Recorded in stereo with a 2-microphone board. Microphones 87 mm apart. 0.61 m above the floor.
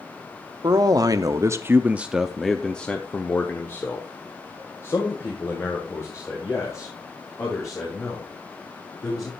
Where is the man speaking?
50° right (ahead or behind), 0.9 m; by 9.3 s 40° left (ahead or behind), 4 m.